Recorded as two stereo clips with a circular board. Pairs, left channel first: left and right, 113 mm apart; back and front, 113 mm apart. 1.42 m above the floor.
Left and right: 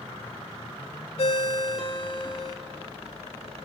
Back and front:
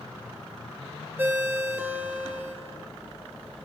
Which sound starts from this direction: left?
A ringtone, at 1.2 s.